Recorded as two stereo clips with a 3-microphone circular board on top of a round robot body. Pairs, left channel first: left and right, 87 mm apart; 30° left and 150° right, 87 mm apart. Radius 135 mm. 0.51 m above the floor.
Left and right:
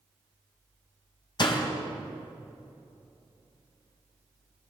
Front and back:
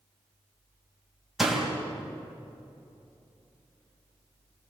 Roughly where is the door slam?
Behind left.